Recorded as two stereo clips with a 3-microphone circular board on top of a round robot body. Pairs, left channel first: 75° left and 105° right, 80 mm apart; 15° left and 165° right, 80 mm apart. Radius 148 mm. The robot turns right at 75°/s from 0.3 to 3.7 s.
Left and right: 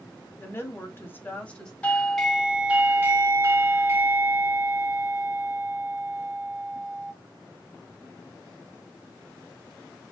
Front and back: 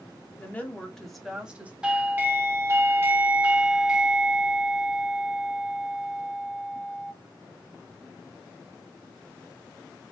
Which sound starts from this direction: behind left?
A doorbell, at 1.8 s.